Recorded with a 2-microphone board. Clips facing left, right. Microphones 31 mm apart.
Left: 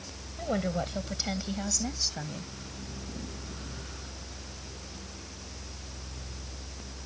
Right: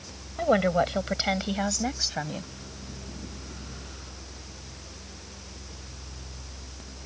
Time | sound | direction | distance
0.4 | a woman speaking | 40° right (ahead or behind) | ?